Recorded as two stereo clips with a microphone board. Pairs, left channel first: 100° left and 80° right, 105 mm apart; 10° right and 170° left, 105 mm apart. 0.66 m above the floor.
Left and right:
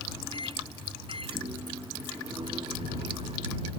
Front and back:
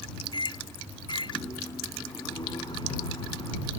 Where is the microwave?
50° right.